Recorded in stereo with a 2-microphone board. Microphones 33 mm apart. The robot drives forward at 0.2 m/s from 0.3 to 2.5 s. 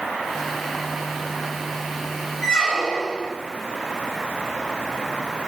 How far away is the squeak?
About 0.6 m.